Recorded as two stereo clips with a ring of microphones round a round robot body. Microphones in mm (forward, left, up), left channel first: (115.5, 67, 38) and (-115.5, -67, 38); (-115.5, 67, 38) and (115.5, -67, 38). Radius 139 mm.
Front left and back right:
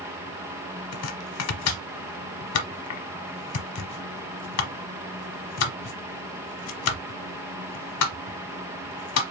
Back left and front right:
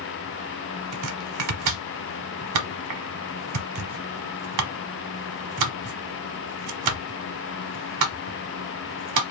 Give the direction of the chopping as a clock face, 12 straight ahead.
12 o'clock.